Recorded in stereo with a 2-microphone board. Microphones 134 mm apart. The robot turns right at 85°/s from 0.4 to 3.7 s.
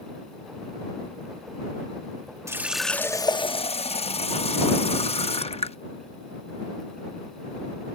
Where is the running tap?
25° right; by 5.8 s 75° left.